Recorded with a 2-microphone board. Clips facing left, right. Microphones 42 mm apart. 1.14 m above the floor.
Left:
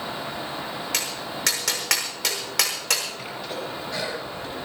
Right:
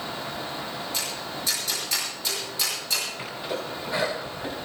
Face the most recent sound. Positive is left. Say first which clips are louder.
# even
turn(degrees=-20)  # may be behind; listen again after turning